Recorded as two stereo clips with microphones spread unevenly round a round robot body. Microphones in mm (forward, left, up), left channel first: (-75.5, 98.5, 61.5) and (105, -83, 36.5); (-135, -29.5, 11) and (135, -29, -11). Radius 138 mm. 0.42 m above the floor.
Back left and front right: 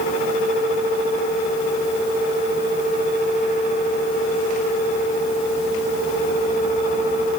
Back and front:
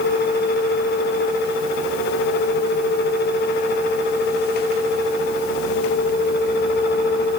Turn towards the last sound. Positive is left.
No sound to turn to.